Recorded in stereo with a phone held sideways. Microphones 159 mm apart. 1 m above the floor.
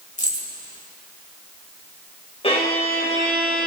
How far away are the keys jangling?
About 3.5 m.